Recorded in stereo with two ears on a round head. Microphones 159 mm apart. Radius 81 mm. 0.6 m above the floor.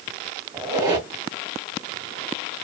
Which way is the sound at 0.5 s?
25° right (ahead or behind).